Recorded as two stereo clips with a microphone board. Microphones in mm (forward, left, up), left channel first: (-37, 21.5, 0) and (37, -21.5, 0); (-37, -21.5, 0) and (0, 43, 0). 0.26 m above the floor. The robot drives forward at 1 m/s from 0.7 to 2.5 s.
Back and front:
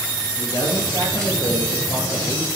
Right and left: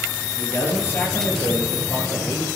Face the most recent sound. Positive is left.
turn(degrees=-175)